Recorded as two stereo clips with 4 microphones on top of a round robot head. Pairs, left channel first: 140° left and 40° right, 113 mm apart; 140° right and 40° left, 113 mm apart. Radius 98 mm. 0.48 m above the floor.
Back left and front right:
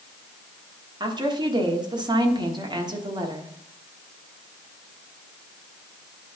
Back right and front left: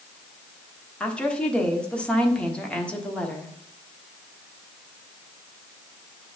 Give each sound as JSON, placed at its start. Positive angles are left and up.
{"t": 1.0, "sound": "a woman speaking", "azimuth_deg": -65, "distance_m": 1.3}